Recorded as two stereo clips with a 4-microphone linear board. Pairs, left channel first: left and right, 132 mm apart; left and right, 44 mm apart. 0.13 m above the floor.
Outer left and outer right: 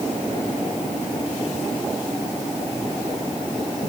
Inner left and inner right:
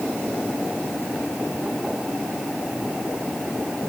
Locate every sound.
Only background noise.